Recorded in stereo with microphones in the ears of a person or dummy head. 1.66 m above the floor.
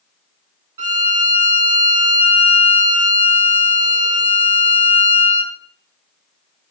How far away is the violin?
About 0.7 m.